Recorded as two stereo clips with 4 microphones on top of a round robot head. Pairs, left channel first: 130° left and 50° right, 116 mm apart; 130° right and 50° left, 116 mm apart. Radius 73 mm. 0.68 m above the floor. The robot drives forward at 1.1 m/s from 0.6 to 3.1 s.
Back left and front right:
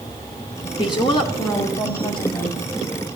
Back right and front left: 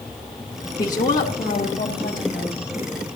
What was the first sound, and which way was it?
A woman speaking, 175° left.